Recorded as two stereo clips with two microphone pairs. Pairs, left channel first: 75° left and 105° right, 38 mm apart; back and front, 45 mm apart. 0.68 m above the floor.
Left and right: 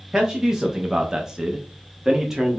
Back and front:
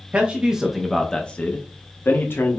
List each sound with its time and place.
0.1 s a man speaking: 30° right, 0.8 m; by 2.6 s straight behind, 1.2 m